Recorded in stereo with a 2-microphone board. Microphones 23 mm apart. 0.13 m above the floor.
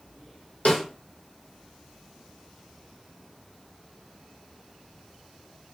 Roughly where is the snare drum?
Left.